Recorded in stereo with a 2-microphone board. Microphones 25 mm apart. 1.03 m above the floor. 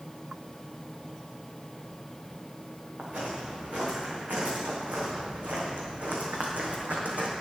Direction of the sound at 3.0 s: 70° right (ahead or behind).